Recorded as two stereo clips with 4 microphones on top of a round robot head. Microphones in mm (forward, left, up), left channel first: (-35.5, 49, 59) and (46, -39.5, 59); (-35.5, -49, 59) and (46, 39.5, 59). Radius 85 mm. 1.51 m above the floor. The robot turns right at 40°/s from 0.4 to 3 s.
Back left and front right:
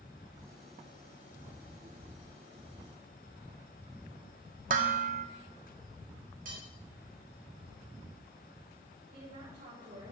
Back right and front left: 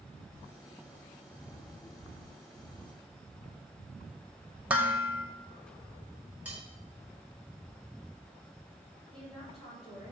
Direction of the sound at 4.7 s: 30° right.